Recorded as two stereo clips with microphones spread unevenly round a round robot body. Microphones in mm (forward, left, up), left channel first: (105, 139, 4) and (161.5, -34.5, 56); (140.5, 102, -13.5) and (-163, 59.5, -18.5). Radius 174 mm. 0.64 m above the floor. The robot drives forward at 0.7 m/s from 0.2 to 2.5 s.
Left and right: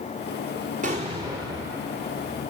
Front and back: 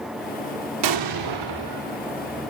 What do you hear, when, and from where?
0.8 s an explosion: 140° right, 0.8 m; by 1.8 s 160° right, 1.4 m